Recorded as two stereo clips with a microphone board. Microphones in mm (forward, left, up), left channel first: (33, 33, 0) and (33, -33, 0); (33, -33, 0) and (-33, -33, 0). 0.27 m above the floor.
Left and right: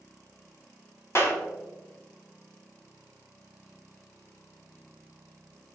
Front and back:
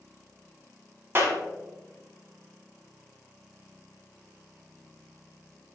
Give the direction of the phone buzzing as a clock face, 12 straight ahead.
I don't hear a phone buzzing.